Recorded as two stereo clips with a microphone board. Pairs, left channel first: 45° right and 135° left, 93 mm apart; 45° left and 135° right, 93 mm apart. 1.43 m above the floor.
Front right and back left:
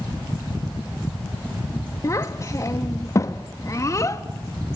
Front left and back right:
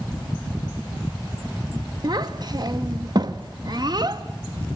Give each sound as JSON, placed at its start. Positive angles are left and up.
{"t": 2.0, "sound": "a child speaking", "azimuth_deg": -100, "distance_m": 1.3}